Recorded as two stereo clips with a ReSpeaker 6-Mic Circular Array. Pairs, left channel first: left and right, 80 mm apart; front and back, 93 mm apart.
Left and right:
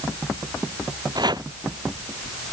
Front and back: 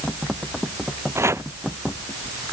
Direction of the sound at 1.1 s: 120° right.